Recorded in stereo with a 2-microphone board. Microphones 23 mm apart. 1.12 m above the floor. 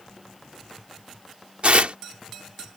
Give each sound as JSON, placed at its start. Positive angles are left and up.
{"t": 1.6, "sound": "tearing paper", "side_deg": -65}